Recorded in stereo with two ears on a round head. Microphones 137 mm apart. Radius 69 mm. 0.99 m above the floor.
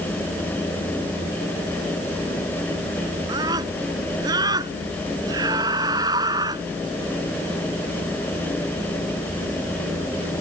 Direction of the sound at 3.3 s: 25° right (ahead or behind).